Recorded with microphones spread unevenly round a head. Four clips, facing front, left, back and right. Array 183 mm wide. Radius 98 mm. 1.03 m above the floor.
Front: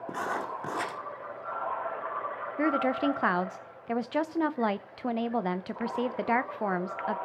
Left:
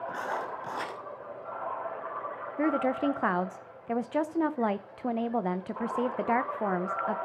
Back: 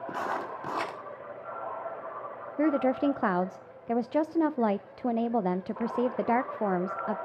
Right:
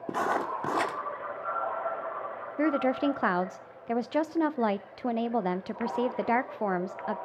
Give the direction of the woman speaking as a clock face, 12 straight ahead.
5 o'clock.